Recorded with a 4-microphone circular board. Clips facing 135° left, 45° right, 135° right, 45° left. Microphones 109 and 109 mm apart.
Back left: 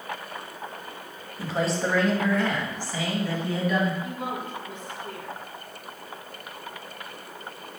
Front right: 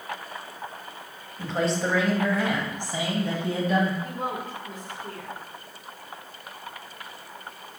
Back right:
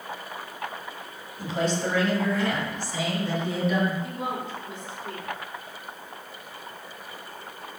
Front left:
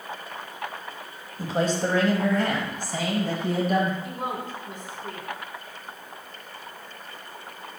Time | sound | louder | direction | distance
1.4 | a man speaking | even, front left 2 dB | 55° left | 1.5 m
4.0 | a woman speaking | front right 1 dB, even | 5° left | 2.5 m